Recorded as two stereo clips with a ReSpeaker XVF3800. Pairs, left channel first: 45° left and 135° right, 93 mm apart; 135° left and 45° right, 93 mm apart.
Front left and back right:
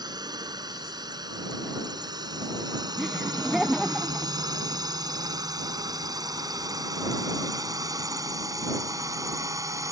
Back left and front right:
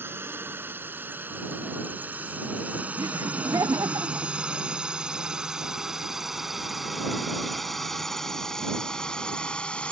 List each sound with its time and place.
0.0 s a drone: 105° right; by 9.9 s 155° right
3.0 s laughter: 50° right